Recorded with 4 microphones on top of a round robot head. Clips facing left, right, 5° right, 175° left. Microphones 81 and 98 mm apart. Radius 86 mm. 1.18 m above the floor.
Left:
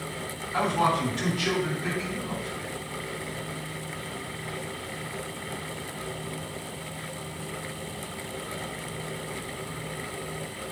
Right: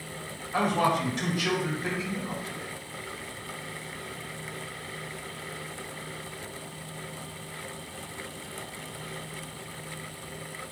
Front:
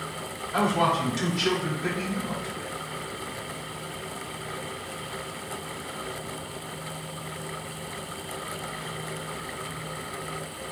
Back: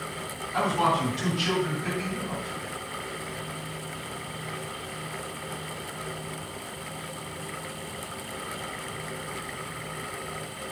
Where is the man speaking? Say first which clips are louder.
Left 1 dB, front 1 dB; 15° right, 4 m.